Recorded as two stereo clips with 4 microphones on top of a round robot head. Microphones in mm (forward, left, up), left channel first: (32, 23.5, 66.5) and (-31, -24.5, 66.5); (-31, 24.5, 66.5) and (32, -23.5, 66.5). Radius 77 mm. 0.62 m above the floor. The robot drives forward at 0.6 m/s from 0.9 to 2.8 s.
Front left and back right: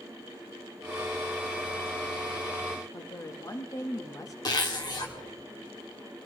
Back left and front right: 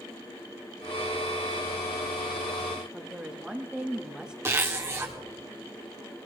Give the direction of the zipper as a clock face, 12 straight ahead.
11 o'clock.